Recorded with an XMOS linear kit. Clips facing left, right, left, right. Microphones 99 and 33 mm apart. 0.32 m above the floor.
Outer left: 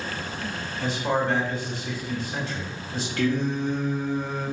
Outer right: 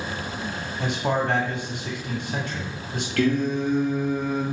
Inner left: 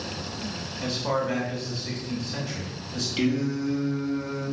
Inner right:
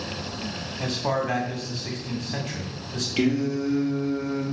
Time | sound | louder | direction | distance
0.8 | a man speaking | outer right 1 dB, inner right 1 dB | 60° right (ahead or behind) | 1.9 m
3.2 | singing | outer right 3 dB, inner right 2 dB | 80° right | 3.5 m